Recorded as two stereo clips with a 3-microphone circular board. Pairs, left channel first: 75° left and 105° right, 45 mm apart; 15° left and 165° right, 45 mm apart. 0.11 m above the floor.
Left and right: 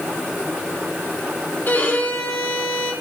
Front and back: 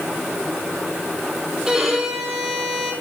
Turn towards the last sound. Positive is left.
turn(degrees=110)